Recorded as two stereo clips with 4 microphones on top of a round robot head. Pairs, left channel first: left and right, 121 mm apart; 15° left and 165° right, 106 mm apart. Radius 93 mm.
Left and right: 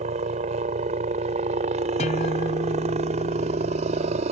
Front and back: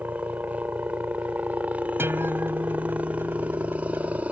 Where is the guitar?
125° left.